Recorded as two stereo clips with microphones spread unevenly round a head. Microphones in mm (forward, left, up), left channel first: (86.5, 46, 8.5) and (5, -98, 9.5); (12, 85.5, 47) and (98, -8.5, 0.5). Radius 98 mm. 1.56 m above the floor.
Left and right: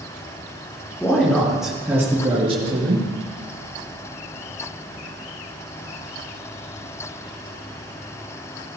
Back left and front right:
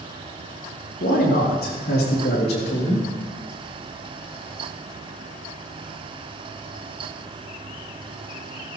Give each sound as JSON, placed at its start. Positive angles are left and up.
{"t": 1.0, "sound": "a man speaking", "azimuth_deg": 140, "distance_m": 3.0}